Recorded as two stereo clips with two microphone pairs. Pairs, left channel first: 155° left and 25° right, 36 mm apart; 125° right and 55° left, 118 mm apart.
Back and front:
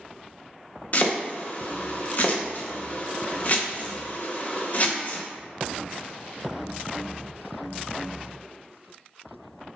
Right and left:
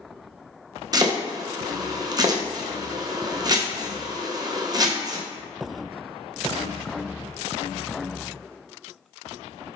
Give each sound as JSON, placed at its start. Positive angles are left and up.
{"t": 0.9, "sound": "chopping", "azimuth_deg": 110, "distance_m": 0.6}